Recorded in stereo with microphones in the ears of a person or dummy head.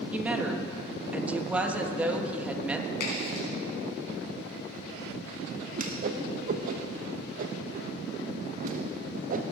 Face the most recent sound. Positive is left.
turn(degrees=-45)  # may be behind; listen again after turning